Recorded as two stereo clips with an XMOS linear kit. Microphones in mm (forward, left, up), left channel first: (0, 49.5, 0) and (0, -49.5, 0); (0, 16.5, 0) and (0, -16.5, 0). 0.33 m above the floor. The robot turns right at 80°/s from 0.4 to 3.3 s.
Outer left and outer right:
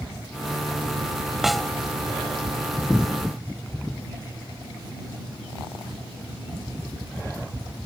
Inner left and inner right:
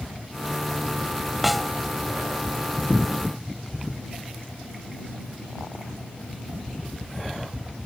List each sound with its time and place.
1.4 s a snare drum: 5° right (ahead or behind); by 1.7 s 10° left (ahead or behind)